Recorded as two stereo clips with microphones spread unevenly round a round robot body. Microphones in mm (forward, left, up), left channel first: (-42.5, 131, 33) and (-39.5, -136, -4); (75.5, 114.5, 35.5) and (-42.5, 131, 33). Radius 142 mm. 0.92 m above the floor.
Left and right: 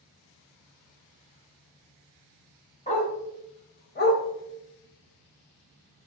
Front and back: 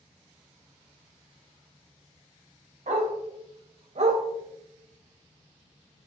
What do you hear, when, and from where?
2.9 s a dog barking: 155° left, 3 m; by 4.2 s 140° left, 1.6 m